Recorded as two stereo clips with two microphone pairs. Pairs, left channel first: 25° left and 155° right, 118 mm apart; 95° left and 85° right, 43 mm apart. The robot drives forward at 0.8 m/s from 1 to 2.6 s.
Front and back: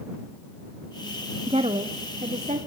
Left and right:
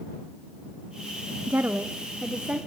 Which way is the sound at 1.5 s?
115° right.